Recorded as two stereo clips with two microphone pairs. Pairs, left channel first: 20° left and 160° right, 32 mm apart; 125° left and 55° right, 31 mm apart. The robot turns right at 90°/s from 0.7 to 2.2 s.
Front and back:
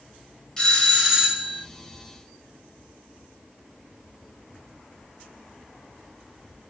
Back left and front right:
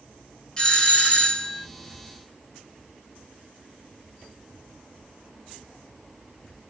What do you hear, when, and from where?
0.6 s a doorbell: 80° left, 1.7 m; by 1.7 s 170° left, 1.7 m